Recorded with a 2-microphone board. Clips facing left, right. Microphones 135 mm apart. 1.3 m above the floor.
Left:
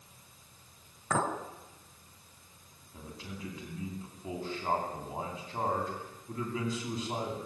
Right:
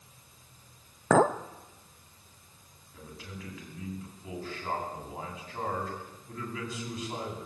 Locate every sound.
1.1 s a clink: 80° right, 1.1 m
2.9 s a man speaking: 25° left (ahead or behind), 10 m